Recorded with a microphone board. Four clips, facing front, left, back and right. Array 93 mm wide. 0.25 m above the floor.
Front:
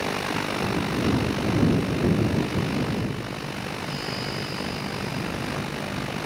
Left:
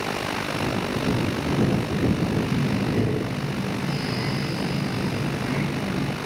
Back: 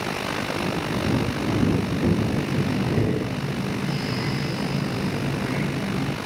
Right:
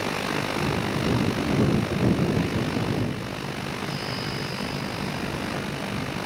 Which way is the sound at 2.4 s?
140° left.